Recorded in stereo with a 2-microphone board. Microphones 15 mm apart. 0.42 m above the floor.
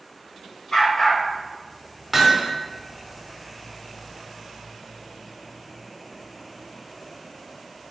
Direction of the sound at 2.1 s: 15° right (ahead or behind).